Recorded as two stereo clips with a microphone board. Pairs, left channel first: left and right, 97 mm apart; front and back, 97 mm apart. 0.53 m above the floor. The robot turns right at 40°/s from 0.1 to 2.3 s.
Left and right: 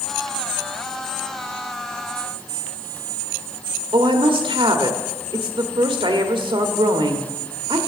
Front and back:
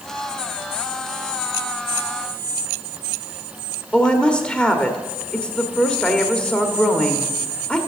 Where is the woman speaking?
80° right, 1.3 m.